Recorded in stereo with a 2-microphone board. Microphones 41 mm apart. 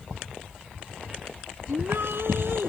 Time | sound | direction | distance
1.7 | a shout | 70° right (ahead or behind) | ?